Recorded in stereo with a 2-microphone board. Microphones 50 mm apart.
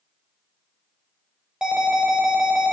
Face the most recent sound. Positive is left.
turn(degrees=-15)  # may be behind; listen again after turning